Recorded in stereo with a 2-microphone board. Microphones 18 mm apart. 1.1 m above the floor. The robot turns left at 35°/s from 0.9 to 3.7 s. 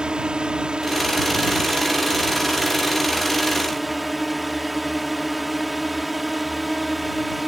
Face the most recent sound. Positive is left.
turn(degrees=-175)